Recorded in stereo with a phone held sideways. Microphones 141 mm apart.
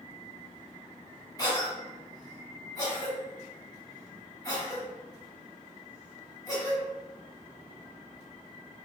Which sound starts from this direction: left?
A cough, at 1.4 s.